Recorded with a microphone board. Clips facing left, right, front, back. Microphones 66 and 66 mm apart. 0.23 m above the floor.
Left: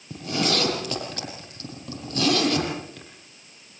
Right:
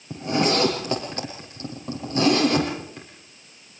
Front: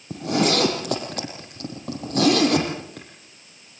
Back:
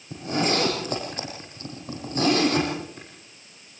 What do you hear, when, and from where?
0.1 s a zipper: 25° right, 6 m